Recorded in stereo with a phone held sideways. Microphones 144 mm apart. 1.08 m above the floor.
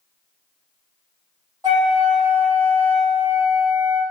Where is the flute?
25° right (ahead or behind), 1.4 m.